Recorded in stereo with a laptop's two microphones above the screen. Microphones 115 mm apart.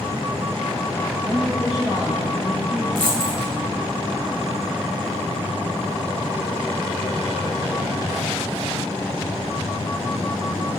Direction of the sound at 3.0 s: 50° right (ahead or behind).